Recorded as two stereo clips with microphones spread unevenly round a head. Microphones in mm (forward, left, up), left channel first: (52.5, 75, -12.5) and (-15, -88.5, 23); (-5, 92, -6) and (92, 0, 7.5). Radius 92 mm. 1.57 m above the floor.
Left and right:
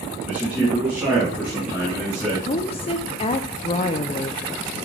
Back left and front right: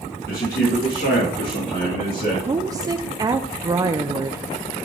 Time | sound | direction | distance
0.3 | a man speaking | 165° left | 2.5 m
2.5 | a woman speaking | 5° left | 0.5 m